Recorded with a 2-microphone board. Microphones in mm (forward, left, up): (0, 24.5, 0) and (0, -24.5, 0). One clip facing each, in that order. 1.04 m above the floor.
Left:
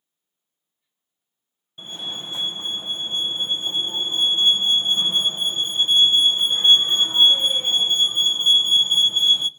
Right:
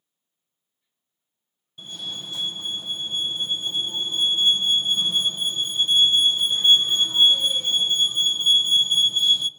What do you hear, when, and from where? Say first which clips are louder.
1.8 s a fire alarm: left 2 dB; 30° left (ahead or behind), 1.2 m